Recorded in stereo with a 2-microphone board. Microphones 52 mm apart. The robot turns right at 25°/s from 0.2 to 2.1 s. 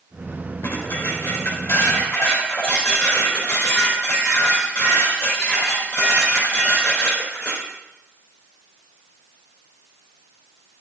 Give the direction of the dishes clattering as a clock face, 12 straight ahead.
9 o'clock.